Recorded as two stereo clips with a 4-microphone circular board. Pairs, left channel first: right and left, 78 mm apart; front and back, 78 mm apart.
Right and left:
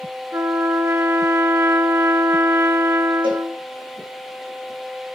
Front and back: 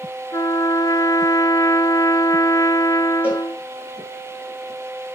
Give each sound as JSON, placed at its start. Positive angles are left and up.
{"t": 0.3, "sound": "a trumpet", "azimuth_deg": 40, "distance_m": 0.6}
{"t": 3.2, "sound": "a cowbell", "azimuth_deg": 110, "distance_m": 6.0}